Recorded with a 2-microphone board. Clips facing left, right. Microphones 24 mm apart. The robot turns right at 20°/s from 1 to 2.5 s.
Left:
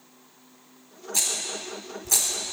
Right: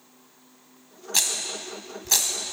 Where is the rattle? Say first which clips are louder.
Right 2 dB; 60° right (ahead or behind), 1.4 m; by 2.5 s 40° right (ahead or behind), 1.4 m.